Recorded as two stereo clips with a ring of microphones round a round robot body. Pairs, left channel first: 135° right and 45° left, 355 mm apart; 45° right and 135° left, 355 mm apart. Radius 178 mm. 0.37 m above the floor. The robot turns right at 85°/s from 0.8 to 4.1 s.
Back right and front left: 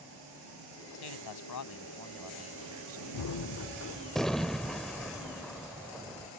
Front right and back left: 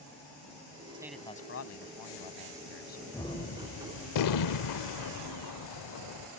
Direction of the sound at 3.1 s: 130° right.